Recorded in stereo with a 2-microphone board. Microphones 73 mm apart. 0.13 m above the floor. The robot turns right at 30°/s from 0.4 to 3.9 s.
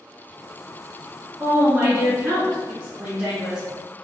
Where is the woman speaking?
30° right (ahead or behind), 1.4 m; by 3.6 s 10° right (ahead or behind), 1.4 m.